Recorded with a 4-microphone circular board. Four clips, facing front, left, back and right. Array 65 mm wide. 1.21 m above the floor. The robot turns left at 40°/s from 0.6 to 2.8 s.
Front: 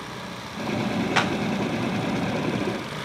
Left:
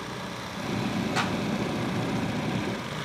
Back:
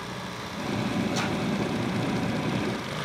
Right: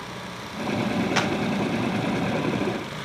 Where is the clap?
20° right, 3 m; by 1.3 s 30° right, 3 m.